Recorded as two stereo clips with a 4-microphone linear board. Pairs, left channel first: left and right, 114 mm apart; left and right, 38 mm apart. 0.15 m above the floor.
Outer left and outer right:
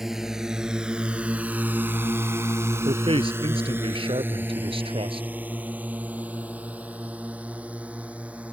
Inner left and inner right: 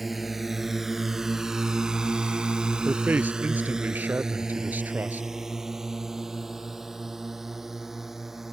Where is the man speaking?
55° right (ahead or behind).